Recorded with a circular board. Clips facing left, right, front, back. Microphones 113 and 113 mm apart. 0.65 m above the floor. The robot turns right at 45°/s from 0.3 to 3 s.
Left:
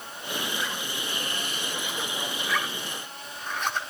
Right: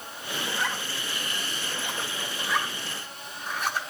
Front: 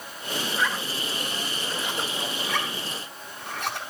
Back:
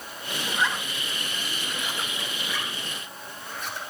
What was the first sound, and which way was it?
A zipper, 130° right.